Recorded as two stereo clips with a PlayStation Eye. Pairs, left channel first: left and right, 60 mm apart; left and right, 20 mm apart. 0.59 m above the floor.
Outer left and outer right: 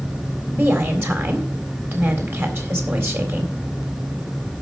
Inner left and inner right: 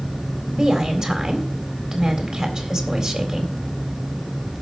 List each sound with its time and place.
0.5 s a woman speaking: 45° right (ahead or behind), 3.5 m